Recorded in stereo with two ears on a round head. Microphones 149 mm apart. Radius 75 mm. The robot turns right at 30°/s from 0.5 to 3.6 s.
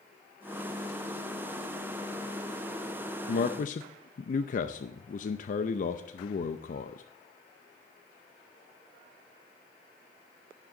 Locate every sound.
3.3 s a man speaking: 60° left (ahead or behind), 0.5 m; by 7.0 s 50° left (ahead or behind), 0.5 m